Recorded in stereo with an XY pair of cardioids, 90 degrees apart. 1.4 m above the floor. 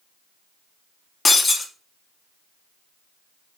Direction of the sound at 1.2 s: 40° left.